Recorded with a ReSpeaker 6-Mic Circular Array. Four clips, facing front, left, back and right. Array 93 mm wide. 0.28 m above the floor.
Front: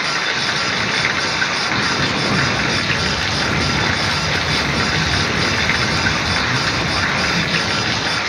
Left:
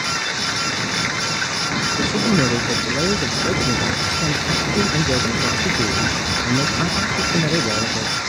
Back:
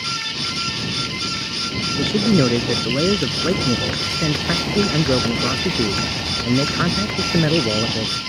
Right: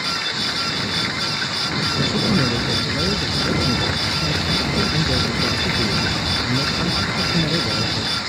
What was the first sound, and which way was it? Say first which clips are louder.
Running water: left 2 dB, front 8 dB; 10° left.